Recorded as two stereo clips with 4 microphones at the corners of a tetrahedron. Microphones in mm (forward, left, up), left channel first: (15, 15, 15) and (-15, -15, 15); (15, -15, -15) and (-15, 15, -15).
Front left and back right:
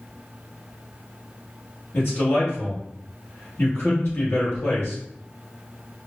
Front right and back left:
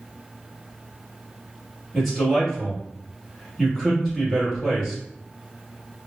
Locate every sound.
1.9 s a man speaking: 40° left, 1.8 m